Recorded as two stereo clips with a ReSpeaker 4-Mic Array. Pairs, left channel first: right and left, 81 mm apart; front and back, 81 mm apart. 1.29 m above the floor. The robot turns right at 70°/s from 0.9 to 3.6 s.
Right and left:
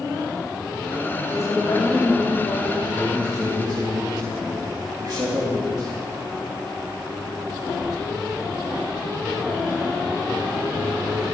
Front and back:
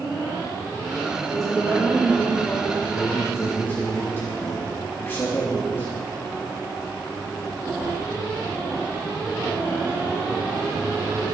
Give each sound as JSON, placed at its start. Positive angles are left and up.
{"t": 1.3, "sound": "a woman speaking", "azimuth_deg": -150, "distance_m": 5.5}
{"t": 2.9, "sound": "a man speaking", "azimuth_deg": 15, "distance_m": 3.0}